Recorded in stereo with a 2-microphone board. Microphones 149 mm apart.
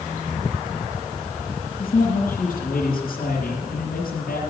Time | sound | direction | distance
1.8 | a man speaking | 80° left | 5.5 m